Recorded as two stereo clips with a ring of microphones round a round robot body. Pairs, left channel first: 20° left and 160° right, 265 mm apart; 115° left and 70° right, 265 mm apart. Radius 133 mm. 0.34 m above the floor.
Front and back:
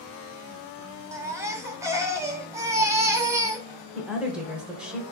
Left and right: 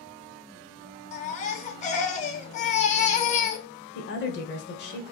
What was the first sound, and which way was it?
A baby crying, 135° left.